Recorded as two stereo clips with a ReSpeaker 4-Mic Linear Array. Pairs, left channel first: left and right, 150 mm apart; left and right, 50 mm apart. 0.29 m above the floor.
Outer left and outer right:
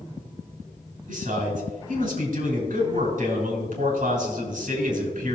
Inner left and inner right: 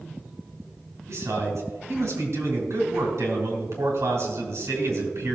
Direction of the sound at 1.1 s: 65° right (ahead or behind).